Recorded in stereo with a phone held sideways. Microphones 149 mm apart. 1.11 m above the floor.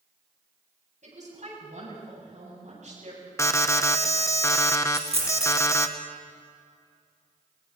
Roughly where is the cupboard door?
I don't hear a cupboard door.